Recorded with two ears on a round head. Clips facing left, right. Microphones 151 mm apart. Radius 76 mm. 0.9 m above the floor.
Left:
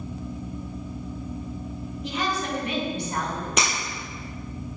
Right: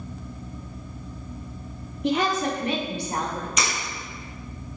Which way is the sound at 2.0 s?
50° right (ahead or behind).